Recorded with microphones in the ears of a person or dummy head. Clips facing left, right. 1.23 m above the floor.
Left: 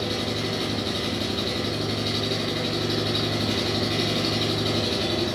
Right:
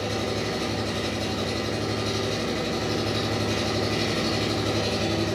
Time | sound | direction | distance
0.0 | an engine running | 30° right (ahead or behind) | 5.5 m